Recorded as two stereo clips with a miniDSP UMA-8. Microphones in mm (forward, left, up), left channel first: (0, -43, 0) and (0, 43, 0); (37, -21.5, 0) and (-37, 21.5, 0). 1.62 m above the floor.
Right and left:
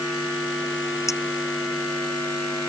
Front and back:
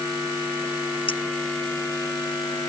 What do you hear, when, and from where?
1.1 s a clink: 35° right